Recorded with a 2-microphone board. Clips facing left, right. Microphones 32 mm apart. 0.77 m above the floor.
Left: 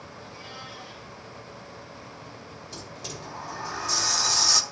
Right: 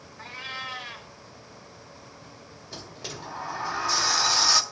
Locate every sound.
0.2 s a cat meowing: 65° right (ahead or behind), 0.8 m
2.7 s a sliding door: 15° right (ahead or behind), 0.6 m